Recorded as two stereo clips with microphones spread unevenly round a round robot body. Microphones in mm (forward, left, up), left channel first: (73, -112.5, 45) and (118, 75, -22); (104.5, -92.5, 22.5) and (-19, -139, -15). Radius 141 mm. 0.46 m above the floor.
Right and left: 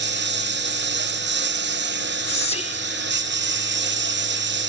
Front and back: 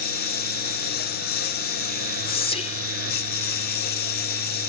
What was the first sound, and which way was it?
A lawn mower, 45° left.